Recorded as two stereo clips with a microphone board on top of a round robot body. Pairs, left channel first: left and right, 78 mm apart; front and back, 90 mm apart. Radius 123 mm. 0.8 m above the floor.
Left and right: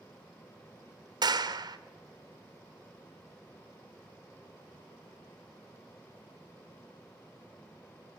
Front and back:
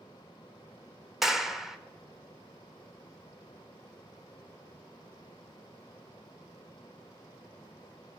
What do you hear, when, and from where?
1.2 s a clap: 95° right, 1.3 m